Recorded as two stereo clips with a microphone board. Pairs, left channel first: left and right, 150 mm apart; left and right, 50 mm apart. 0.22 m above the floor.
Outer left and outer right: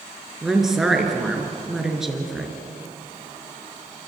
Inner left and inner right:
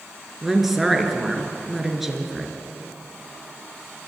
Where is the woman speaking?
5° right (ahead or behind), 4 m.